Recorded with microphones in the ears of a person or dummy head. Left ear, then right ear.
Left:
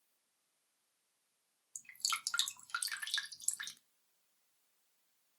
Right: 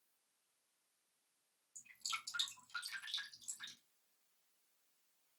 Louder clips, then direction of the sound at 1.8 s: Left 6 dB; 60° left (ahead or behind).